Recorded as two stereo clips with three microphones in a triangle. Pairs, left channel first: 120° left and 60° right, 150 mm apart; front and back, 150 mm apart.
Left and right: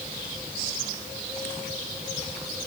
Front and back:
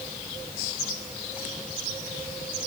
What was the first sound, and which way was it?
Only background noise.